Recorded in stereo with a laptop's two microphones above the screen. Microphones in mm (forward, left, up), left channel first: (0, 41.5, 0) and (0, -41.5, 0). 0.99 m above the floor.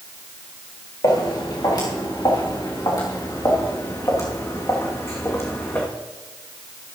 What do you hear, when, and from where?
1.0 s footsteps: 60° left (ahead or behind), 4.5 m; by 5.9 s 25° left (ahead or behind), 2.5 m